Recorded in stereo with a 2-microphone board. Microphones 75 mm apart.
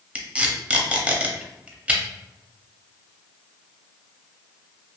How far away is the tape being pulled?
About 0.5 m.